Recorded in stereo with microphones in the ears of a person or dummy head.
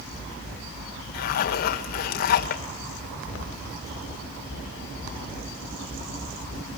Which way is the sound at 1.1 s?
50° left (ahead or behind).